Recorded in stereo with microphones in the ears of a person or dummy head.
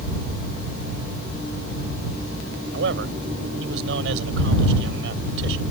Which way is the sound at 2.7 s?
80° right.